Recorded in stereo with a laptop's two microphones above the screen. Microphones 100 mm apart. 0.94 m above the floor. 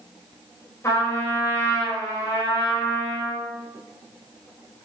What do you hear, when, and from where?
0.8 s a trumpet: 30° left (ahead or behind), 3.5 m